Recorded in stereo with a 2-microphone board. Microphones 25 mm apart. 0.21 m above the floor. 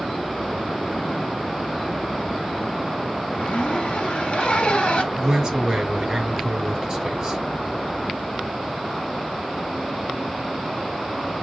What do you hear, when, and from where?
3.3 s a zipper: 50° left (ahead or behind), 1.2 m
5.1 s a man speaking: 30° right (ahead or behind), 3.5 m